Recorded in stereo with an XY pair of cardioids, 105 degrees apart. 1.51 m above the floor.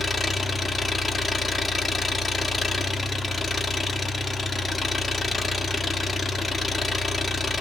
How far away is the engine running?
About 3 m.